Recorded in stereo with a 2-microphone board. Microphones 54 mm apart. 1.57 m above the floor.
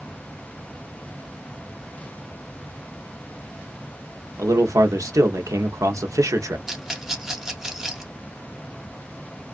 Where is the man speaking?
75° right (ahead or behind), 0.7 m.